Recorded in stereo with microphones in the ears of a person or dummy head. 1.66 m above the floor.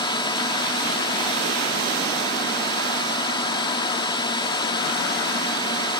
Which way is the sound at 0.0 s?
20° left (ahead or behind).